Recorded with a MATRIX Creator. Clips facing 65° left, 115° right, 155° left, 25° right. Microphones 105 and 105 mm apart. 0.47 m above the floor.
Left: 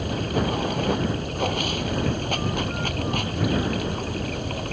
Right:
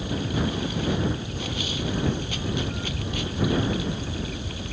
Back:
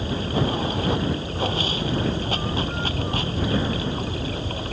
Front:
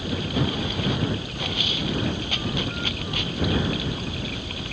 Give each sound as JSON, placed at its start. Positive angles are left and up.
{"t": 0.0, "sound": "running water", "azimuth_deg": 105}